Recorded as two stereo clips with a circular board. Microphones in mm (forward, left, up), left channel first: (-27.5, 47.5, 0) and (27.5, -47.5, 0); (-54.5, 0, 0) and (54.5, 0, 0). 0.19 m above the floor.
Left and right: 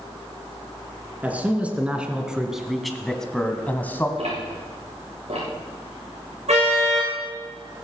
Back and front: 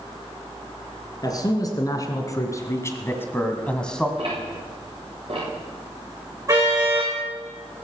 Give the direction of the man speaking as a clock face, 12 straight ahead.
4 o'clock.